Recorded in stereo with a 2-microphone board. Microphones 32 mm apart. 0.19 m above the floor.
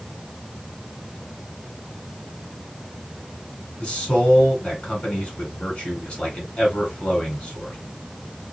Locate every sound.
3.8 s a man speaking: 40° left (ahead or behind), 1.7 m